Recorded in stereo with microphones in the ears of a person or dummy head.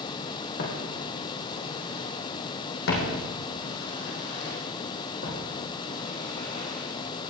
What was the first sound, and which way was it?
Footsteps, 60° left (ahead or behind).